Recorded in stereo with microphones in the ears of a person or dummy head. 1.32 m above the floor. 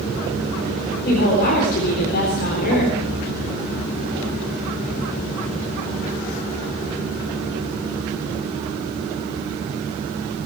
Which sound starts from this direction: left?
A woman speaking, at 1.1 s.